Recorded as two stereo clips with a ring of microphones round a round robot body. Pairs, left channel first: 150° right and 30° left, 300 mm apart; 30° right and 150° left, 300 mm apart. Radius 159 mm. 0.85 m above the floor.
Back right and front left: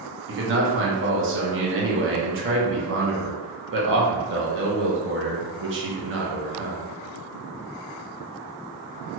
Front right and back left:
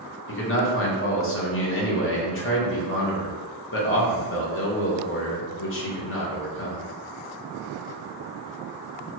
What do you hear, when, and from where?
0.3 s a man speaking: straight ahead, 0.9 m